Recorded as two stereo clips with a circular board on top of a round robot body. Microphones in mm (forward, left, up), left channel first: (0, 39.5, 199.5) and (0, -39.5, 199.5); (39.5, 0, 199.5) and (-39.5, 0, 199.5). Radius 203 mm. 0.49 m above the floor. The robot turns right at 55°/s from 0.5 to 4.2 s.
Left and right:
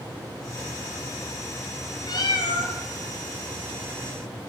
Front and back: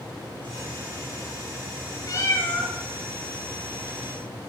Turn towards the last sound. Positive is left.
turn(degrees=165)